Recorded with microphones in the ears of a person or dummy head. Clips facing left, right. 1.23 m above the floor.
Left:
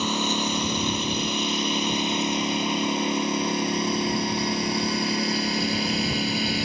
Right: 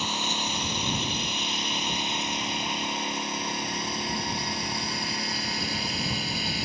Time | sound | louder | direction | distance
0.0 | a lawn mower | left 7 dB | 85° left | ?